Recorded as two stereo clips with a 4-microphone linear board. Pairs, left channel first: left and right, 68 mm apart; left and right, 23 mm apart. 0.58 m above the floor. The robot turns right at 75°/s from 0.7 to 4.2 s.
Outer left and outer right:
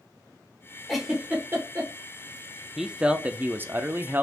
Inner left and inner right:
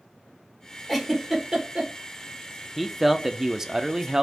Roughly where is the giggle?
Centre.